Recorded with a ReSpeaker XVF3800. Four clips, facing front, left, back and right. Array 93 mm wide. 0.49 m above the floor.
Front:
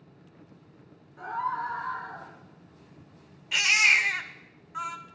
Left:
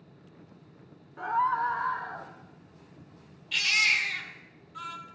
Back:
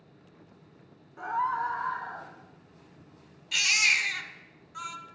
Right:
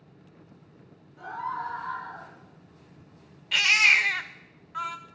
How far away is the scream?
About 1.1 m.